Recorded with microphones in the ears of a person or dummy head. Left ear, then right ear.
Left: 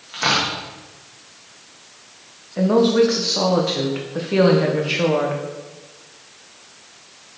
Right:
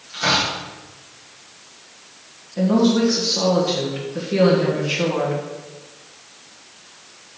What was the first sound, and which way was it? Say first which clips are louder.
Tearing paper: even; 35° left (ahead or behind).